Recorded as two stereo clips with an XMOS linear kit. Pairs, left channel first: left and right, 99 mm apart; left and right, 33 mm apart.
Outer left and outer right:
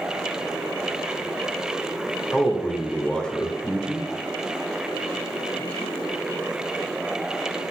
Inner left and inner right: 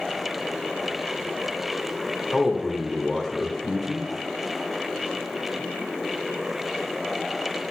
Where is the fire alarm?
No fire alarm in this recording.